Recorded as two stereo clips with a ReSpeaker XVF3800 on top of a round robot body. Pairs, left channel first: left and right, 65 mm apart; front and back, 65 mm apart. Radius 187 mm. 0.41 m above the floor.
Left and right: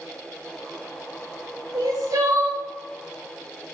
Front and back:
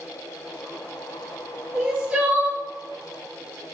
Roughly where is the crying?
Behind right.